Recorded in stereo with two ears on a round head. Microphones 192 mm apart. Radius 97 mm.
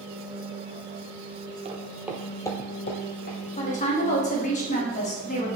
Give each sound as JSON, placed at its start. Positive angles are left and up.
{"t": 1.6, "sound": "footsteps", "side_deg": -30, "distance_m": 0.8}
{"t": 3.6, "sound": "a woman speaking", "side_deg": 35, "distance_m": 1.1}